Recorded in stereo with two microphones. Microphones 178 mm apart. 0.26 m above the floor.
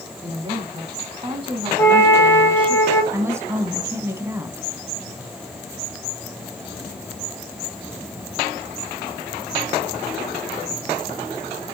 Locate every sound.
0.2 s a woman speaking: 30° right (ahead or behind), 2.5 m
1.8 s a flute: 15° left (ahead or behind), 1.9 m
3.1 s a woman speaking: 15° right (ahead or behind), 1.9 m